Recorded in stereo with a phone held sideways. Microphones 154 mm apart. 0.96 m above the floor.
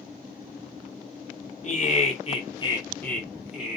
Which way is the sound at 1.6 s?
50° left (ahead or behind).